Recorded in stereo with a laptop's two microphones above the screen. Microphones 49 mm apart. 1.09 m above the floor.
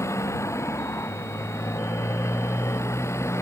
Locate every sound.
0.0 s a motorcycle: 80° left; by 3.4 s 70° left (ahead or behind)